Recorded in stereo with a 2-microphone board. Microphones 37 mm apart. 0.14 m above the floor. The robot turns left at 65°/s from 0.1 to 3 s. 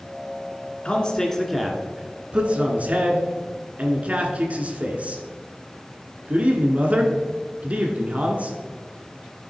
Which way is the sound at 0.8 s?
30° left (ahead or behind).